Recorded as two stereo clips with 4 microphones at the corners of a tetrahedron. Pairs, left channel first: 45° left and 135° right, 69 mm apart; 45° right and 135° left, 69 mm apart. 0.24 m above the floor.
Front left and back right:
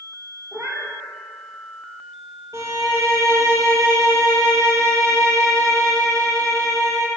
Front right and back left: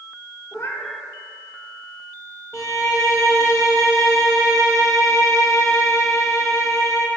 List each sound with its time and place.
0.5 s a cat meowing: 80° right, 1.1 m
2.5 s a violin: 95° right, 1.8 m